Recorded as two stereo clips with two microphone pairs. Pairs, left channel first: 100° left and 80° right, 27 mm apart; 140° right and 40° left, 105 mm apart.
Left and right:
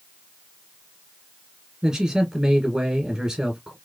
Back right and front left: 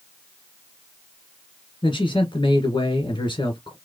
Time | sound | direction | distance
1.8 | a man speaking | 135° right | 1.6 m